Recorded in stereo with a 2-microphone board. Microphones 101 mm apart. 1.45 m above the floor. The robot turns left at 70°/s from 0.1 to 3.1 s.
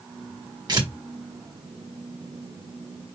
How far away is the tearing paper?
About 1.4 m.